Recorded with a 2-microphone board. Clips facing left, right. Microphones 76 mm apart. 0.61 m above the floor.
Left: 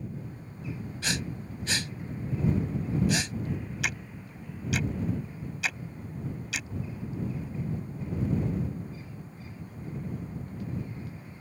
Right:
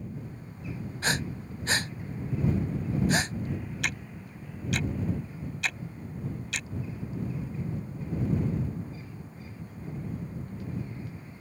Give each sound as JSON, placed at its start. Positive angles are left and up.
{"t": 1.0, "sound": "breathing", "side_deg": -40}
{"t": 3.8, "sound": "ticking", "side_deg": 5}